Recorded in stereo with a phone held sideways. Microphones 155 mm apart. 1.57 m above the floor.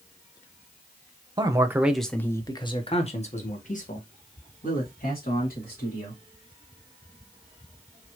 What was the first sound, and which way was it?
A man speaking, 30° right (ahead or behind).